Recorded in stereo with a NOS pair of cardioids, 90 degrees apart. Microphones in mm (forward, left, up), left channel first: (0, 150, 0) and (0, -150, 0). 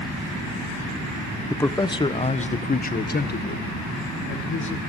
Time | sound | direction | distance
1.5 | a man speaking | 5° left | 1.2 m